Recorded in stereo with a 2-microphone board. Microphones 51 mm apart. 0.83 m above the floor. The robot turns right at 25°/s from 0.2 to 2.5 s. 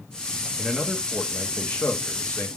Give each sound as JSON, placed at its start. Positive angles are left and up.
{"t": 0.6, "sound": "a man speaking", "azimuth_deg": 10, "distance_m": 1.0}